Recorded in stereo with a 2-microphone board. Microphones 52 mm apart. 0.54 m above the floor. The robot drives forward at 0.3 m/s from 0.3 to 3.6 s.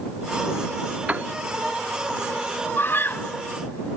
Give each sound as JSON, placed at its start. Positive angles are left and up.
{"t": 1.1, "sound": "a piano", "side_deg": -25}
{"t": 2.8, "sound": "a scream", "side_deg": 50}